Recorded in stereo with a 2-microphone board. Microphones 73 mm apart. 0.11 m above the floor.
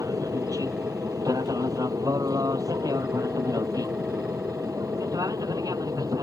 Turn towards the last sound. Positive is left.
turn(degrees=-55)  # may be behind; listen again after turning